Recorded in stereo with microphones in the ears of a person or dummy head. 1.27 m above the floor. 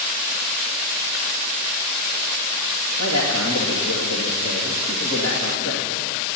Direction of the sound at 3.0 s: 80° left.